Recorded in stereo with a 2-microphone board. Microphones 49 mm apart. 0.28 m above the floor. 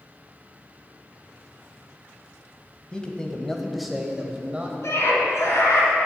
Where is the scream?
65° left (ahead or behind), 3 m.